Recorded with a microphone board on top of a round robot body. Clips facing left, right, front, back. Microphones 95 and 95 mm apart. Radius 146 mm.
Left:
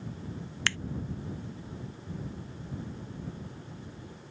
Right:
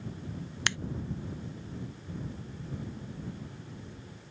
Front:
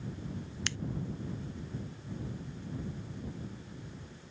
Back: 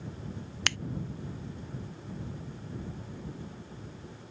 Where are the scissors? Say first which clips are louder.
Even, back 8 dB; 160° right.